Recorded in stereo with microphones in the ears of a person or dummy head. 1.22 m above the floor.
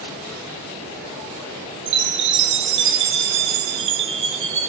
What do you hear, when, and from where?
1.9 s a chime: 60° right (ahead or behind), 0.8 m